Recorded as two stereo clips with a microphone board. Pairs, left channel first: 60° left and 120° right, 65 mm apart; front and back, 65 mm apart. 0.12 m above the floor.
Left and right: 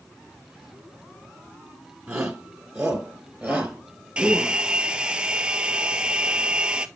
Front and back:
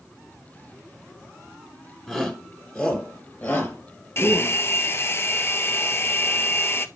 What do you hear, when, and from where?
2.1 s a shout: 65° right, 1.7 m; by 4.6 s 40° right, 3.5 m
4.2 s a hair dryer: 45° right, 0.6 m